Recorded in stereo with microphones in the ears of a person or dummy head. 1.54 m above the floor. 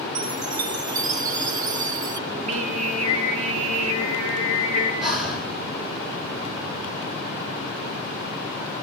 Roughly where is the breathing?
Centre.